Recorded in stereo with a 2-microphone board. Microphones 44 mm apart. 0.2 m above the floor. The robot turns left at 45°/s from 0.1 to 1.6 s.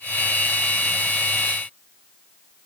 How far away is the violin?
I don't hear a violin.